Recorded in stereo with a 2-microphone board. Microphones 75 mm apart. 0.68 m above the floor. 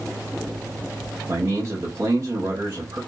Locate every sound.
1.3 s a man speaking: 40° right (ahead or behind), 1.2 m